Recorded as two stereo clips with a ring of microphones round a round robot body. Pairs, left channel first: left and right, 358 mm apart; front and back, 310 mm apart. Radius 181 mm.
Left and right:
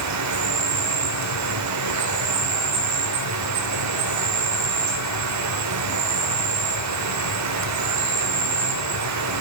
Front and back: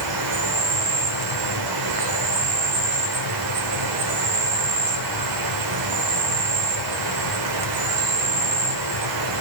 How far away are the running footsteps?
I don't hear running footsteps.